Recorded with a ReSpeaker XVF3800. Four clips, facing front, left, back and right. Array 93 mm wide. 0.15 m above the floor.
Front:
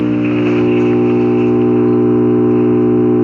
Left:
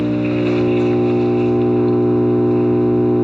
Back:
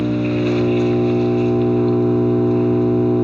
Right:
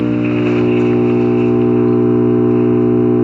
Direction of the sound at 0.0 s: 35° right.